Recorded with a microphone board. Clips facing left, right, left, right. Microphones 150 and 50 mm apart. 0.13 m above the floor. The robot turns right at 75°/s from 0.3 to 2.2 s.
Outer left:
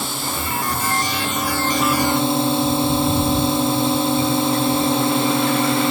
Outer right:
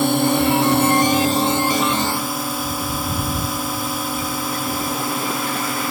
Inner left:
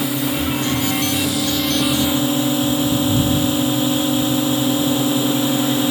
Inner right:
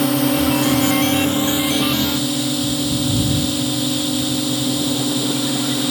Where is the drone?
115° right; by 5.9 s 30° left.